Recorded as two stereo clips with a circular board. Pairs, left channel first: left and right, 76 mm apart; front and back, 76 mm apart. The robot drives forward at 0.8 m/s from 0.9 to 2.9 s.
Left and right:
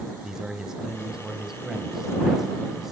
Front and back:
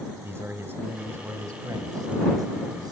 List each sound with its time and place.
0.2 s a man speaking: 165° right, 1.4 m; by 2.9 s 175° right, 2.5 m